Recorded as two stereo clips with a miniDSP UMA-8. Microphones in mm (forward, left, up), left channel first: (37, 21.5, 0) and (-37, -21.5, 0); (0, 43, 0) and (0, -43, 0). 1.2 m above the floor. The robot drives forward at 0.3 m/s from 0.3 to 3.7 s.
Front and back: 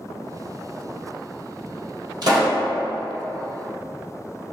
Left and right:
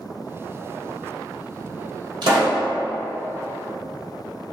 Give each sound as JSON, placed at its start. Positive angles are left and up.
{"t": 2.2, "sound": "a pop", "azimuth_deg": -115, "distance_m": 1.4}